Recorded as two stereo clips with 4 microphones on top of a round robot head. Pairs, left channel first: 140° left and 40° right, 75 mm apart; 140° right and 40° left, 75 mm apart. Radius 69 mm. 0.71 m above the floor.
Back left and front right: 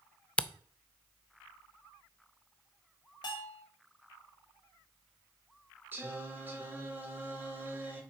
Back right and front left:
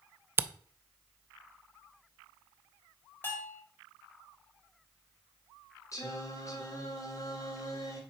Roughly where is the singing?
Right.